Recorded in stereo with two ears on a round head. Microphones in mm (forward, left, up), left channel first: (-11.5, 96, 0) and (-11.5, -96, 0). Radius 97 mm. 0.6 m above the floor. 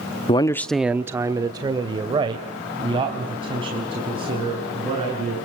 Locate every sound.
0.3 s a man speaking: 25° left (ahead or behind), 0.8 m; by 5.4 s 25° right (ahead or behind), 7 m